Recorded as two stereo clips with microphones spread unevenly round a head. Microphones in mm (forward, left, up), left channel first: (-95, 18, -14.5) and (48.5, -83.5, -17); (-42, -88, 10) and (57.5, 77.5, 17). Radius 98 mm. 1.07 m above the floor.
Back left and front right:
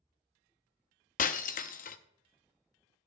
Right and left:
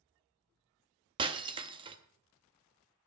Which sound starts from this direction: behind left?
Breaking glass, at 1.2 s.